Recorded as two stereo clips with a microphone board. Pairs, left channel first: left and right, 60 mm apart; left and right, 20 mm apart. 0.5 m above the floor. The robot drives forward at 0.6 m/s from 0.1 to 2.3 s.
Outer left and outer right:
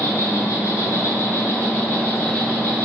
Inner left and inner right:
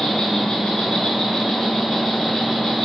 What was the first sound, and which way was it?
An insect, 60° left (ahead or behind).